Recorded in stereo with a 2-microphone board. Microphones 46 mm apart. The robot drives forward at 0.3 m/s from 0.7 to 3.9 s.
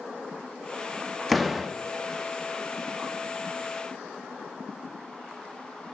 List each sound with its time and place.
1.3 s a door slam: centre (ahead or behind), 0.5 m